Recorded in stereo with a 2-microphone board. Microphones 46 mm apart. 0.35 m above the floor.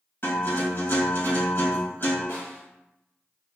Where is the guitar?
50° left (ahead or behind), 1.7 m.